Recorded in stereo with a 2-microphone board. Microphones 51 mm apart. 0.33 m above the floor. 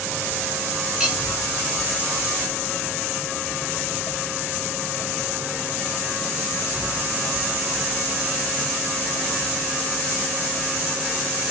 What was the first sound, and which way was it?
Cutlery clinking, 10° right (ahead or behind).